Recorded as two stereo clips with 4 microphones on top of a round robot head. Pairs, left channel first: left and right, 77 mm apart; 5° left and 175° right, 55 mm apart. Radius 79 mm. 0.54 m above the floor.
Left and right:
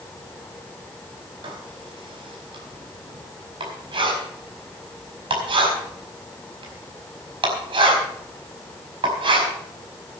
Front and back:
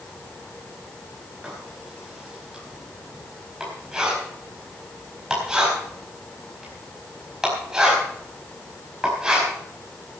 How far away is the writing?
About 5 m.